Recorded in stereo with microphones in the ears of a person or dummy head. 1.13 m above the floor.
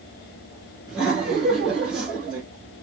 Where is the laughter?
Centre (ahead or behind), 1.1 m.